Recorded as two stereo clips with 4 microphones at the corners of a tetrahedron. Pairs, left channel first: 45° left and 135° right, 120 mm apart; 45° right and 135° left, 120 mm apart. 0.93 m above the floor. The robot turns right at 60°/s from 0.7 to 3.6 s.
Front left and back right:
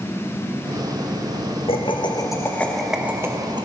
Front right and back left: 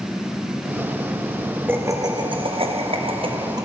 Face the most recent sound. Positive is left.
turn(degrees=180)